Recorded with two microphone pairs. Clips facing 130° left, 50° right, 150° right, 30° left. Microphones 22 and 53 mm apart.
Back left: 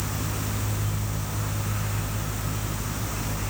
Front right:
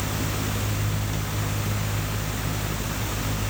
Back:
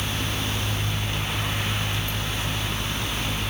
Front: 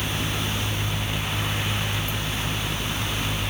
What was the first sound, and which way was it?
Only background noise.